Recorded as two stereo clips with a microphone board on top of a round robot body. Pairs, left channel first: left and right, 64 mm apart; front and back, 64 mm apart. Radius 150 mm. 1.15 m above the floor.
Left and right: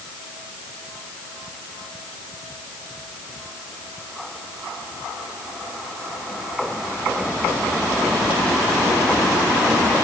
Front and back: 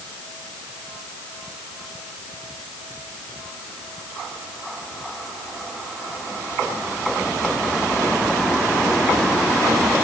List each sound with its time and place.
Only background noise.